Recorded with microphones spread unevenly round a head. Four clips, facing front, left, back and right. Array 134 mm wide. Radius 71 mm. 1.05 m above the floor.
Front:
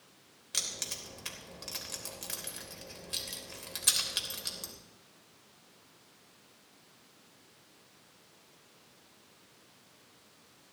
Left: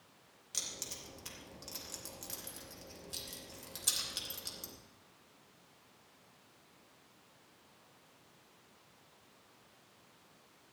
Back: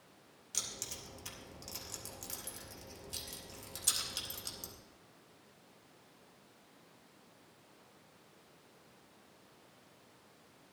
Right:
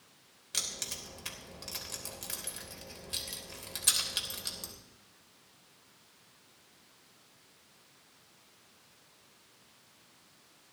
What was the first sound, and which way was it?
Keys jangling, 30° right.